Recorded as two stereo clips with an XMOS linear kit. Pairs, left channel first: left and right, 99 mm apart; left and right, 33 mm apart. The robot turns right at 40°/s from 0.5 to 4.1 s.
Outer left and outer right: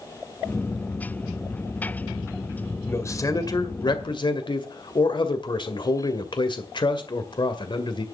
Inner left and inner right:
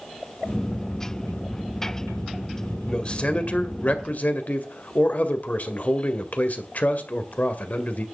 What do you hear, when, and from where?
2.9 s a man speaking: 30° left, 1.9 m; by 8.1 s 80° left, 1.9 m